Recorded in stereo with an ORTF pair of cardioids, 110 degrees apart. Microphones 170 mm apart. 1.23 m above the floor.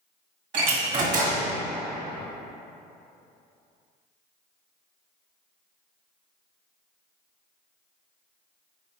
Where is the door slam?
50° right, 1.6 m.